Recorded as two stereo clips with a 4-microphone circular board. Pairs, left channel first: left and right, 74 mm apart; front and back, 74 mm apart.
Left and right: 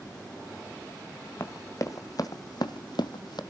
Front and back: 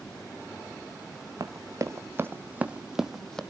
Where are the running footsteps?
140° left, 1.7 m; by 3.4 s 80° left, 1.1 m.